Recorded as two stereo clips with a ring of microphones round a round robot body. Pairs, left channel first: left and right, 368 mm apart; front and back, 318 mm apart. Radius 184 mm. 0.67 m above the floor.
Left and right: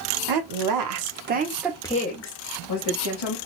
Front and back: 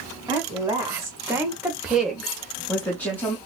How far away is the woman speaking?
About 1.3 m.